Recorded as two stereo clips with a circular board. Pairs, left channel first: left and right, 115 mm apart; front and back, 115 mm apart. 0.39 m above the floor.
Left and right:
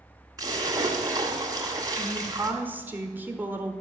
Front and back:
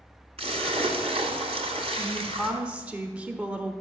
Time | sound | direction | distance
0.4 | a splash | 150° right | 1.6 m
2.0 | a woman speaking | 125° right | 0.9 m